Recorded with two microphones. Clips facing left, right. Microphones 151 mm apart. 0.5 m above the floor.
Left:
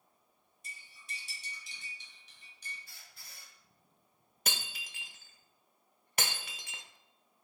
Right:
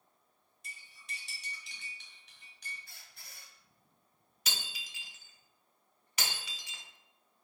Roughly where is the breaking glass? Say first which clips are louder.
Left 3 dB; left.